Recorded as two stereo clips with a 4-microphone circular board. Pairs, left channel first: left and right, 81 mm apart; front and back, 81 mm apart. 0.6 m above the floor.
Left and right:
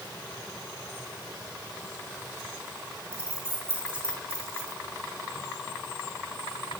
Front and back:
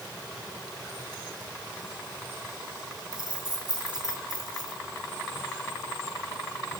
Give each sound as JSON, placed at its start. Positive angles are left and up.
{"t": 3.1, "sound": "keys jangling", "azimuth_deg": -150, "distance_m": 4.0}